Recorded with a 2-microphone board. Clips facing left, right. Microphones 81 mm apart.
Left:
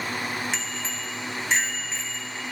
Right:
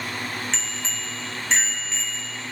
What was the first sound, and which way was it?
A bicycle bell, 10° left (ahead or behind).